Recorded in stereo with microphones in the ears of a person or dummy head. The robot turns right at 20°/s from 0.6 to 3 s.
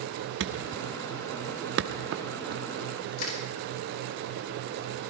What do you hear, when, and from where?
0.4 s a thud: 55° right (ahead or behind), 0.9 m
3.2 s crushing: 55° left (ahead or behind), 5 m